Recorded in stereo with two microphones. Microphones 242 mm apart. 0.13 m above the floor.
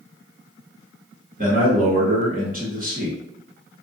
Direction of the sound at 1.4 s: 35° right (ahead or behind).